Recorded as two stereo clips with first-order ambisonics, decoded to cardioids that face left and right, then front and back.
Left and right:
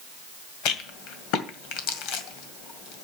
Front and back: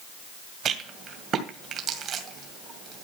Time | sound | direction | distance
0.7 | a rattle | 125° left | 2 m